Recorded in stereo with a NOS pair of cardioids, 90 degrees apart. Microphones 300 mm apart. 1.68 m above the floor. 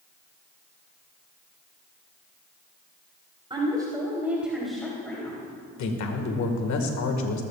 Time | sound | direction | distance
3.5 | a woman speaking | 15° right | 3.5 m
5.8 | a man speaking | 65° left | 1.9 m